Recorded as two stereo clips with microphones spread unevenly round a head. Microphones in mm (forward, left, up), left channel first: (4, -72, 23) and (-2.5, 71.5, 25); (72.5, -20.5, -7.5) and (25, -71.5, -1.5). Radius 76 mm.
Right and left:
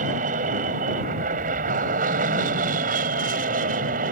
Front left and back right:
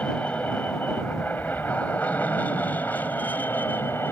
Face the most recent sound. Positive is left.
turn(degrees=125)